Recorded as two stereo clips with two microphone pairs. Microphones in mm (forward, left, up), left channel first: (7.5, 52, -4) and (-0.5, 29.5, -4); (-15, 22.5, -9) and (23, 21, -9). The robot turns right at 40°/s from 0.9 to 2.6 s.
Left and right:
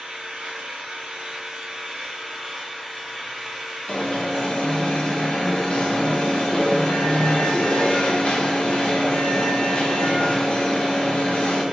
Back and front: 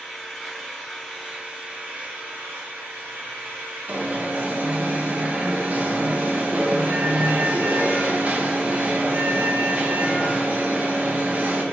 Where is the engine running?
85° right, 2 m; by 11.7 s 20° right, 2 m.